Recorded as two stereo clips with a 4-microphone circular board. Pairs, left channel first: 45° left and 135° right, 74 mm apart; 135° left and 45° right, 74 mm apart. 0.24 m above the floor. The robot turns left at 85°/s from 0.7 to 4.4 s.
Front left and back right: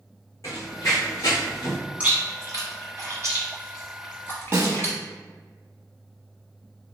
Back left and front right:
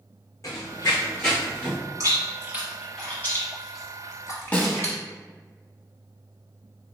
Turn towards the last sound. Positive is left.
turn(degrees=-165)